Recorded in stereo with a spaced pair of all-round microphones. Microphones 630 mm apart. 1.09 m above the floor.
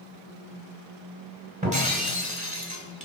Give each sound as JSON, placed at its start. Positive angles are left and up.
{"t": 1.6, "sound": "breaking glass", "side_deg": -10, "distance_m": 1.9}